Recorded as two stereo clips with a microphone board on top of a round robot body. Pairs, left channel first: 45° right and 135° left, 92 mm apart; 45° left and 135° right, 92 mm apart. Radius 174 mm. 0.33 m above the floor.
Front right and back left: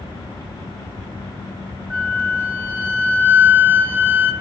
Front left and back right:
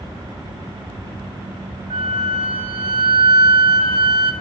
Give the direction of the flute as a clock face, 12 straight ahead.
5 o'clock.